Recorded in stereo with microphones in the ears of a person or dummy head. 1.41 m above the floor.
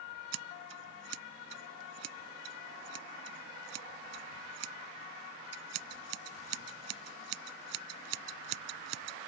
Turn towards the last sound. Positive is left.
turn(degrees=-80)